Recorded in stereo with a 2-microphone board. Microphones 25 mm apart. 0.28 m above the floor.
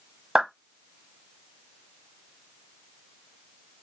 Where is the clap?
35° right (ahead or behind), 1.3 m.